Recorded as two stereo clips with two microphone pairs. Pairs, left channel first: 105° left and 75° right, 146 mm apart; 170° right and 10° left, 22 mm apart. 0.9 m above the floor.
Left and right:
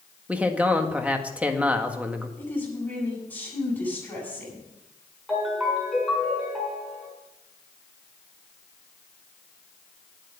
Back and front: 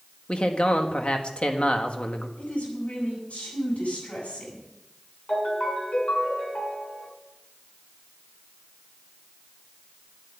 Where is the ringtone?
165° right, 7.5 m.